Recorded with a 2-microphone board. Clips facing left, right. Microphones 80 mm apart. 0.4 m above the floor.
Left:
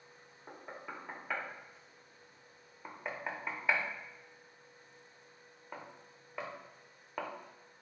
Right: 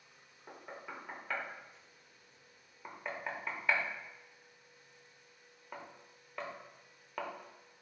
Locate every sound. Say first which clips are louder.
0.5 s knocking: left 1 dB; 10° left (ahead or behind), 0.6 m